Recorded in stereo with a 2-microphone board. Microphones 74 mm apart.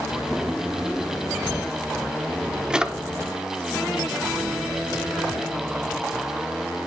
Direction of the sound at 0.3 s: 10° right (ahead or behind).